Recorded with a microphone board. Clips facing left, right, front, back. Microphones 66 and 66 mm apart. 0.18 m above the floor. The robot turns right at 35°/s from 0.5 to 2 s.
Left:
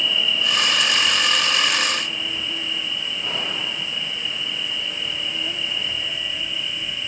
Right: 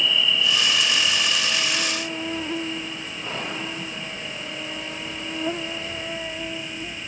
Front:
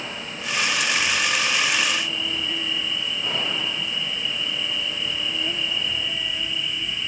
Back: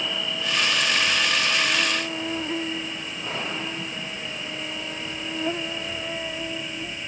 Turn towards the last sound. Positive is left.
turn(degrees=-135)